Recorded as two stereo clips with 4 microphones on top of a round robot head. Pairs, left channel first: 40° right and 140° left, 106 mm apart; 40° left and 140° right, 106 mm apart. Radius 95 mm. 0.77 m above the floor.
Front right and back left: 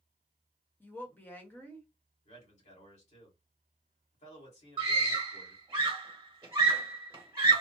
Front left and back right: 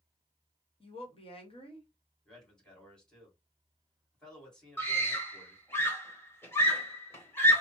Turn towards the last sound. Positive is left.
turn(degrees=95)